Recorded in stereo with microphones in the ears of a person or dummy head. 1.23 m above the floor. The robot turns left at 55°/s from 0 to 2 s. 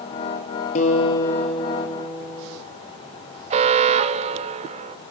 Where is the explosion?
No explosion in this recording.